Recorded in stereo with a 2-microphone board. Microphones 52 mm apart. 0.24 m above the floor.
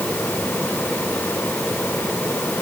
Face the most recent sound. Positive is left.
No sound to turn to.